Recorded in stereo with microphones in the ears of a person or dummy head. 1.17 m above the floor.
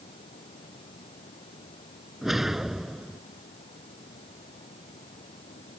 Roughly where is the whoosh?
Centre.